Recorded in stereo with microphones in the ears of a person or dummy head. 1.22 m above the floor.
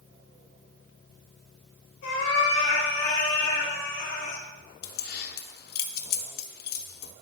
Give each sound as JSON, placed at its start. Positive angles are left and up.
{"t": 2.0, "sound": "a cat meowing", "side_deg": 55, "distance_m": 3.0}
{"t": 4.8, "sound": "keys jangling", "side_deg": 65, "distance_m": 0.8}